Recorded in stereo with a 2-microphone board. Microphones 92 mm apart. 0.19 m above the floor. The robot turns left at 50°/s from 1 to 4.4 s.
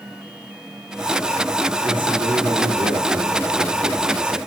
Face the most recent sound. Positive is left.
turn(degrees=180)